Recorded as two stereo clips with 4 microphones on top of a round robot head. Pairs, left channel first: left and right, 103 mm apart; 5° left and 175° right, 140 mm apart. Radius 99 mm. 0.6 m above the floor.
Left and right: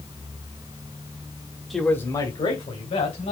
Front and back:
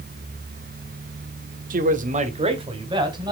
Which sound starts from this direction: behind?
A man speaking, at 1.7 s.